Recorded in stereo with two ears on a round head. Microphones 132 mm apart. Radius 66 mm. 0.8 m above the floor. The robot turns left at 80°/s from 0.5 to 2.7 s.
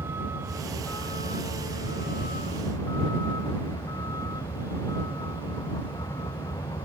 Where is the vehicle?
160° right; by 6.9 s 20° left.